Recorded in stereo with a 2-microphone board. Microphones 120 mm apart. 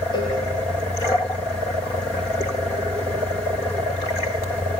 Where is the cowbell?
40° left (ahead or behind), 3 m.